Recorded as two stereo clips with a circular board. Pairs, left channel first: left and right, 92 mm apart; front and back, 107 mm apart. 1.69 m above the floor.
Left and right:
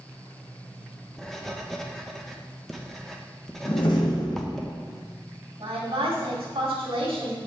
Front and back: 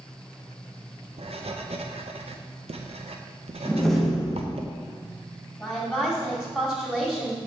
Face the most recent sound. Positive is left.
turn(degrees=-90)